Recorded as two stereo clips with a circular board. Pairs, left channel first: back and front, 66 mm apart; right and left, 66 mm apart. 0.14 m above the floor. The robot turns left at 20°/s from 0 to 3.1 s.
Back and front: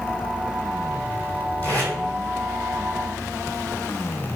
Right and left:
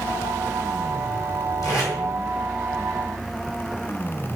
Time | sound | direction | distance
1.6 | tape being pulled | 110° right | 1.5 m